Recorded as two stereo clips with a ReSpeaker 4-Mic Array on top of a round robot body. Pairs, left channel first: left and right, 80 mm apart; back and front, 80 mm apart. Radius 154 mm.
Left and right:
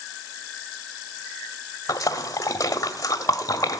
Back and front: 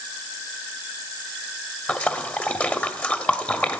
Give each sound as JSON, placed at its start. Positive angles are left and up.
{"t": 1.9, "sound": "a splash", "azimuth_deg": 115, "distance_m": 1.5}